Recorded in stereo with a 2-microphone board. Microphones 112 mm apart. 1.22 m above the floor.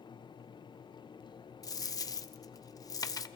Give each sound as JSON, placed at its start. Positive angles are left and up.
{"t": 1.6, "sound": "a dropped coin", "side_deg": 35, "distance_m": 0.6}